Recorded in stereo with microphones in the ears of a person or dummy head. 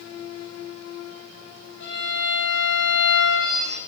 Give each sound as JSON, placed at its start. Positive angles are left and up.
{"t": 1.8, "sound": "a violin", "side_deg": 70, "distance_m": 3.5}